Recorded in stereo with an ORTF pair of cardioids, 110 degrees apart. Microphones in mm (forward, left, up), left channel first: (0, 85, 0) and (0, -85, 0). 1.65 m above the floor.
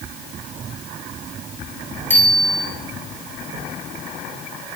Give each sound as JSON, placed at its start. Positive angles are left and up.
{"t": 2.1, "sound": "a bicycle bell", "azimuth_deg": 10, "distance_m": 9.5}